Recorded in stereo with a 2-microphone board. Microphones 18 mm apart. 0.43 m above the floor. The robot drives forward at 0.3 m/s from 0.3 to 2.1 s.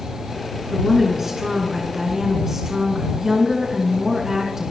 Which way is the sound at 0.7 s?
15° right (ahead or behind).